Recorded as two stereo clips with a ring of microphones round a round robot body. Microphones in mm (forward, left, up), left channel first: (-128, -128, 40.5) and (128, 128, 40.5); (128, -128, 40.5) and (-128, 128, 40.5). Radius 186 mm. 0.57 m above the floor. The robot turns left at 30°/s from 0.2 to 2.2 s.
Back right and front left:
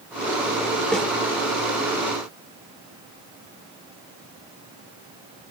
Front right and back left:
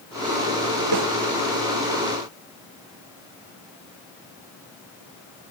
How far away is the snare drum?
About 2 m.